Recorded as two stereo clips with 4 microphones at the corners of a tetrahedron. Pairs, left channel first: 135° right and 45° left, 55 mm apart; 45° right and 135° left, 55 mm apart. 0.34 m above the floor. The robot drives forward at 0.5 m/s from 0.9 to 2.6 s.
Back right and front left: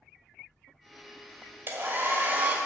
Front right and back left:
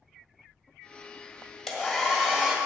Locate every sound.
1.7 s a hair dryer: 50° left, 1.7 m; by 2.6 s 70° left, 1.6 m